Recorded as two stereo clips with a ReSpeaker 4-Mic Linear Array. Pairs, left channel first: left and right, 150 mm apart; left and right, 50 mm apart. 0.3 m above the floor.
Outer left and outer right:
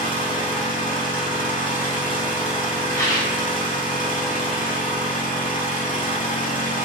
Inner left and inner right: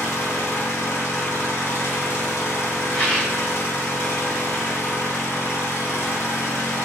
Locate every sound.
0.0 s an engine running: 60° left (ahead or behind), 0.7 m
2.9 s a rattle: 20° left (ahead or behind), 0.9 m